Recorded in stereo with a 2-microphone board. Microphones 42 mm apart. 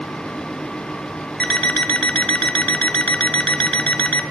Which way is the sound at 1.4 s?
20° left (ahead or behind).